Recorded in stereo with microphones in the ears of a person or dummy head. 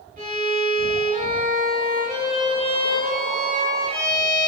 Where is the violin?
50° right (ahead or behind), 3 m.